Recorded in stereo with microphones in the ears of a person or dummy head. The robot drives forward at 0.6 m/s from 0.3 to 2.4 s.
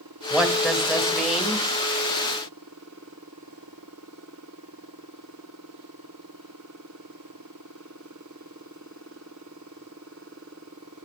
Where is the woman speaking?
5° right (ahead or behind), 1.9 m.